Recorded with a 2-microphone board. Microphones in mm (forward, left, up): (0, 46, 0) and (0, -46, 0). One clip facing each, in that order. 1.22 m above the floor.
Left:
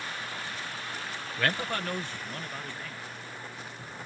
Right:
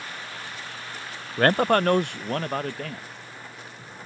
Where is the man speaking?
45° right (ahead or behind); by 3.1 s 75° right (ahead or behind).